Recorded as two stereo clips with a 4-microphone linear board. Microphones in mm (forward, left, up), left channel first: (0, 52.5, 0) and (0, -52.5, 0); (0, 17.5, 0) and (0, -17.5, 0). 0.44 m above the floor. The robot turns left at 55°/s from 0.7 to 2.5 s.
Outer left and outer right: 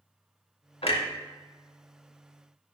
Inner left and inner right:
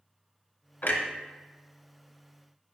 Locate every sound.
0.8 s a clunk: 65° left (ahead or behind), 0.6 m; by 1.0 s 55° left (ahead or behind), 0.6 m